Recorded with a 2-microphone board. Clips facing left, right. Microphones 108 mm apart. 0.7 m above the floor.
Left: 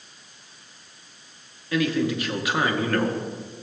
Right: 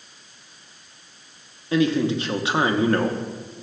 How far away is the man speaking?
About 0.7 m.